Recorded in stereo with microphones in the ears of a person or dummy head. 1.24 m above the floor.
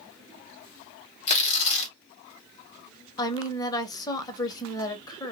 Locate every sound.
1.3 s tearing paper: 35° left (ahead or behind), 1.0 m
3.2 s a woman speaking: 25° left (ahead or behind), 0.8 m